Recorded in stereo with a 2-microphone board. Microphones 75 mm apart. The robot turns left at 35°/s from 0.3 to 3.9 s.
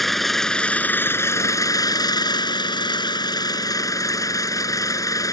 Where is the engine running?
175° left; by 5.3 s 50° left.